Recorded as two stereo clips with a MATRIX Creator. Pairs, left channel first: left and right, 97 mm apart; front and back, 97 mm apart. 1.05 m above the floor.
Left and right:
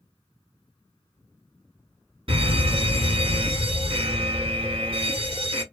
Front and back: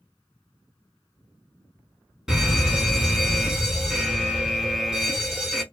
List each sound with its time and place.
2.3 s a fire alarm: 95° right, 2.5 m